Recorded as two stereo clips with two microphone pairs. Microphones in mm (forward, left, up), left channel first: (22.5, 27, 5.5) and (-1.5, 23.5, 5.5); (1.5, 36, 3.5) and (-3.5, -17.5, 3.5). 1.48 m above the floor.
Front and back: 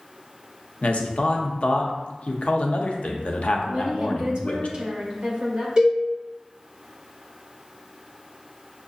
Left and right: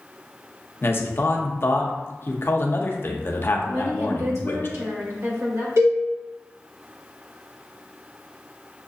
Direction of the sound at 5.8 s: 110° right.